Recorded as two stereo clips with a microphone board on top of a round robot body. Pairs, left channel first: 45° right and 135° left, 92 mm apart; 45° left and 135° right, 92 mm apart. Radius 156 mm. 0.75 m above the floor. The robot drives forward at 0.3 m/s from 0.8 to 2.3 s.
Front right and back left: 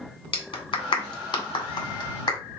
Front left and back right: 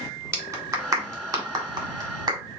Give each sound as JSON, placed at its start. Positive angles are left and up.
{"t": 0.3, "sound": "a clap", "azimuth_deg": -75, "distance_m": 1.8}